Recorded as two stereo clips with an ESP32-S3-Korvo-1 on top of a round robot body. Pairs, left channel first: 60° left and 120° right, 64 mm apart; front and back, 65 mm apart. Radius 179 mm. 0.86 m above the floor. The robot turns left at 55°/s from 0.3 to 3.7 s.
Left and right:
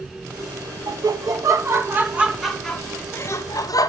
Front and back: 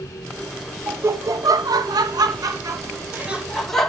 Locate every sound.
0.9 s laughter: 120° right, 2.0 m; by 3.9 s 85° left, 2.0 m